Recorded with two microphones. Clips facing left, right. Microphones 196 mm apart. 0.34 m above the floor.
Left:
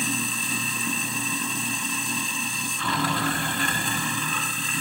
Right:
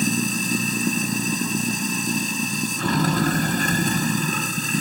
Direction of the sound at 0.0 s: 45° right (ahead or behind).